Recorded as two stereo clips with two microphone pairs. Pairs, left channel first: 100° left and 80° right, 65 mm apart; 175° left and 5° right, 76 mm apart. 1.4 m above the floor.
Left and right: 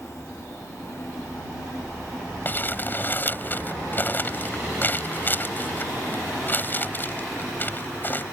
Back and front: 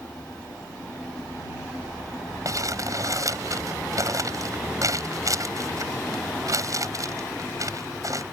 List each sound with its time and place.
2.5 s crumpling: 40° left